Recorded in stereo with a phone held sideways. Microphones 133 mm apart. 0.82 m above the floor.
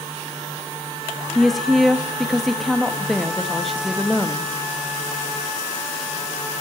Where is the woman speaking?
Centre (ahead or behind), 1.0 m.